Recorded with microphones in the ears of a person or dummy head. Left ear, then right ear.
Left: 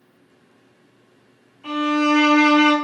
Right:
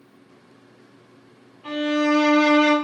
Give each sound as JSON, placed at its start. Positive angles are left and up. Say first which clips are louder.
{"t": 1.6, "sound": "a violin", "louder": "left 2 dB", "side_deg": 35, "distance_m": 1.2}